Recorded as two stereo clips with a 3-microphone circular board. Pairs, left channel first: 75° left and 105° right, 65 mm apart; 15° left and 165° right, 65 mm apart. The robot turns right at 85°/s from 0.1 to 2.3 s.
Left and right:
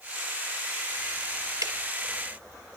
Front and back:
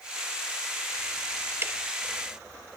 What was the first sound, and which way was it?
Ticking, 120° right.